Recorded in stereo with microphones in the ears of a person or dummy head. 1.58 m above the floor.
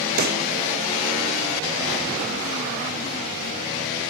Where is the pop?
40° right (ahead or behind), 0.6 m.